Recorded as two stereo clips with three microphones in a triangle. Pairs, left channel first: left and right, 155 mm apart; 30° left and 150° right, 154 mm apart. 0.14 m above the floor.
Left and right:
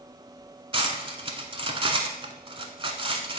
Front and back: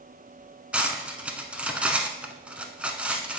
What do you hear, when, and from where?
0.7 s cutlery clinking: 75° right, 0.7 m